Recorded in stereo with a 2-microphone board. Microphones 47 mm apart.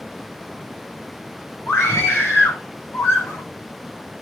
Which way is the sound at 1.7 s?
75° left (ahead or behind).